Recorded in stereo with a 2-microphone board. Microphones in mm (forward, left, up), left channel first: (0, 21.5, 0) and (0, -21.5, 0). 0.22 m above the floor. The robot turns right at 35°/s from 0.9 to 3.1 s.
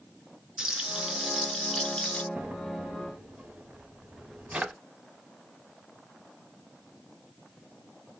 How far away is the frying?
About 0.8 m.